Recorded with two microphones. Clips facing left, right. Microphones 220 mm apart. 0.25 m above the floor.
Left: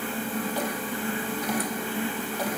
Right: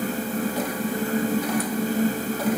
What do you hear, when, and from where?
Only background noise.